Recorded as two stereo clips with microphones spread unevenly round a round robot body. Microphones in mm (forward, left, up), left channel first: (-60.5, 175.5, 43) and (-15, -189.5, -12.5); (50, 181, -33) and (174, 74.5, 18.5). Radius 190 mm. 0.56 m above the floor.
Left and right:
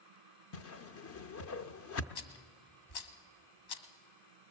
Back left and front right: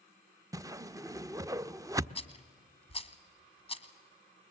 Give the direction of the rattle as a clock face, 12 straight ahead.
9 o'clock.